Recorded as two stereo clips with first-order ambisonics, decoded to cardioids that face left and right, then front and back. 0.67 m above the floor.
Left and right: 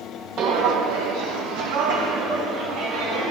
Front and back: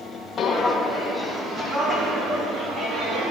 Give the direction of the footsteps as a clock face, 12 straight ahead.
2 o'clock.